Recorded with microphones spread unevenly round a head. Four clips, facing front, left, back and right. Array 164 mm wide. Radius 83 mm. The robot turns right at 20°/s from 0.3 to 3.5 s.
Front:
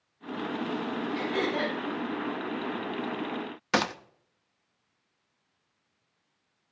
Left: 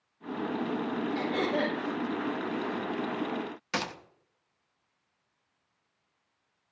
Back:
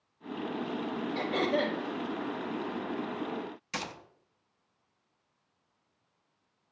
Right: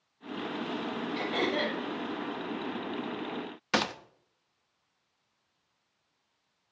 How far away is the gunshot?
About 0.6 m.